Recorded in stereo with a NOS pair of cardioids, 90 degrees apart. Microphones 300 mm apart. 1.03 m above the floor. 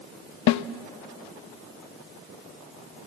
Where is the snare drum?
65° left, 0.7 m.